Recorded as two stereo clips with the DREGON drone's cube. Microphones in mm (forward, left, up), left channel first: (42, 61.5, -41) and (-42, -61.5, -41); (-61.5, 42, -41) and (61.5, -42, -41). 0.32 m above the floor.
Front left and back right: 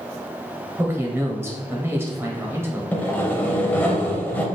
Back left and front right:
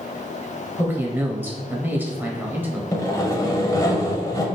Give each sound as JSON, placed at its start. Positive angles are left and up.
{"t": 0.8, "sound": "a man speaking", "azimuth_deg": -85, "distance_m": 0.9}
{"t": 2.9, "sound": "sawing", "azimuth_deg": 115, "distance_m": 0.6}